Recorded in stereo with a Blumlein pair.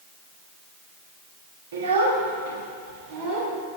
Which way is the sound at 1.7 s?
60° right.